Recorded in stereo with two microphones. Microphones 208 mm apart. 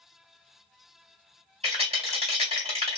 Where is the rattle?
30° right (ahead or behind), 1.6 m.